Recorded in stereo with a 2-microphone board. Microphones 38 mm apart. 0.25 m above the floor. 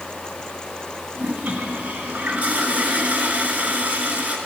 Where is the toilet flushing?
40° right (ahead or behind), 1.9 m.